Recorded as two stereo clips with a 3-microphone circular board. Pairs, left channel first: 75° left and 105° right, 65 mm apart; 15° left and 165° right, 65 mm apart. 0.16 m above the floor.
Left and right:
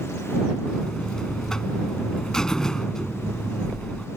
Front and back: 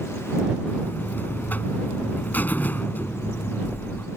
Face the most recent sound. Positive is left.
turn(degrees=5)